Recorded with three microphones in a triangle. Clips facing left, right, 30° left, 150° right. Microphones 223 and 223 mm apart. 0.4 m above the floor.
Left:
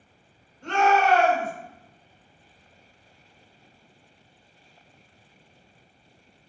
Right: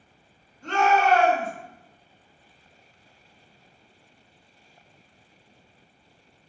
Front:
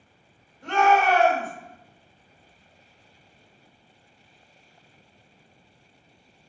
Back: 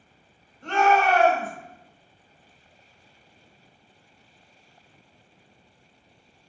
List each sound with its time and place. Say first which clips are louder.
0.6 s a shout: even, even; 100° left, 1.8 m